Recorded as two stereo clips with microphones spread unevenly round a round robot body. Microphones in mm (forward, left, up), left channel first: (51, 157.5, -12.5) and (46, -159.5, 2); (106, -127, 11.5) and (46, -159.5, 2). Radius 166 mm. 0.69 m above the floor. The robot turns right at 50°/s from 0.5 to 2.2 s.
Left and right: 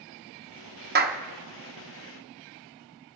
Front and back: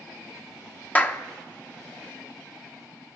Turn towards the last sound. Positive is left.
turn(degrees=20)